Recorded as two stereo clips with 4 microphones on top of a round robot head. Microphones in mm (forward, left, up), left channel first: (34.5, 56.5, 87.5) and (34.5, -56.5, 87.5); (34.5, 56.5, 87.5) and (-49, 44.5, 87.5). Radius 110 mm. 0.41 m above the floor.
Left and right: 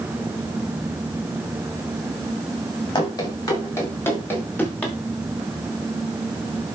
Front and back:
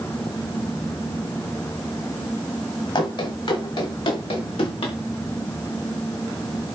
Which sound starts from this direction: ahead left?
Running footsteps, at 3.0 s.